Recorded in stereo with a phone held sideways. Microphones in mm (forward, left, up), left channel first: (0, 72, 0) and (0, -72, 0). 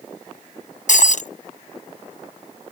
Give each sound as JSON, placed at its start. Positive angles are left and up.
{"t": 0.9, "sound": "breaking glass", "side_deg": 60}